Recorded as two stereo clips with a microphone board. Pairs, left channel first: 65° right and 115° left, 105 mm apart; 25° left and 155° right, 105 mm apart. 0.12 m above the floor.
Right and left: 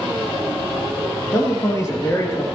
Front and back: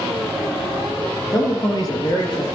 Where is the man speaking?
15° right, 3 m.